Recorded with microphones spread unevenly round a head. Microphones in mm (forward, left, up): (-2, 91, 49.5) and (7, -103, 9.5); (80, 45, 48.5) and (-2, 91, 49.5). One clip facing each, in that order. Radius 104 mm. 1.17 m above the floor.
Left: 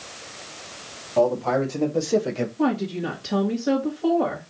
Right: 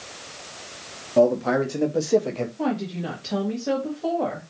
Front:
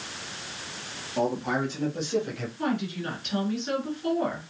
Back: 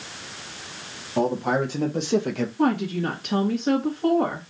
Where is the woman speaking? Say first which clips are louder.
Left 4 dB, back 6 dB; 175° left, 1.8 m.